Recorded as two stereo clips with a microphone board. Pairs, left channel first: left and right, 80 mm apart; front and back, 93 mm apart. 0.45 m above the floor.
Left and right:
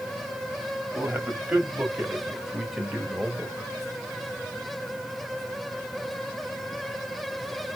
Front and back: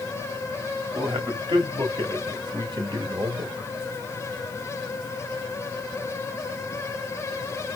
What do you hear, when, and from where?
0.9 s a man speaking: 155° right, 3 m; by 3.7 s 170° left, 1.9 m